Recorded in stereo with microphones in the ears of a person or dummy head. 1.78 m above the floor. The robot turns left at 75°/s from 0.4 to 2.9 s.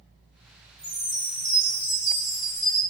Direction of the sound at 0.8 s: 15° right (ahead or behind).